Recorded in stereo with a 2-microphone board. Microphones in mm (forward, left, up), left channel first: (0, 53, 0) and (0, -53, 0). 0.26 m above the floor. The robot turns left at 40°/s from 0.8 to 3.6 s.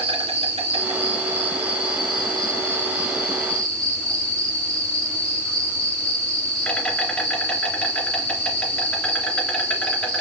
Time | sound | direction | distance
0.0 | an insect | 80° right | 2.5 m